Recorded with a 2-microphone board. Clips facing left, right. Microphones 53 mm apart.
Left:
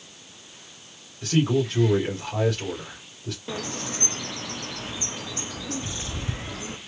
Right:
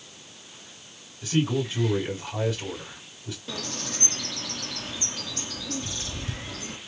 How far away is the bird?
About 0.7 m.